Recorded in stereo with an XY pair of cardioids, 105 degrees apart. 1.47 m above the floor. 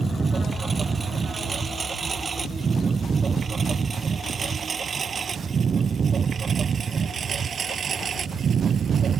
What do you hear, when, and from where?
0.0 s a lawn mower: 30° right; by 9.2 s 50° right